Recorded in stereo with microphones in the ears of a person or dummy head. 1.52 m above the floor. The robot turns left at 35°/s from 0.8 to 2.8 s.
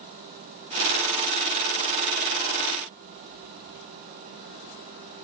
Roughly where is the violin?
No violin in this recording.